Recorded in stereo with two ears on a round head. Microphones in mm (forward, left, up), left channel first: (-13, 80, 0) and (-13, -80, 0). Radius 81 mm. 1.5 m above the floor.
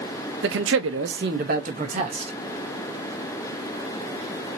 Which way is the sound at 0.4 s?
70° right (ahead or behind).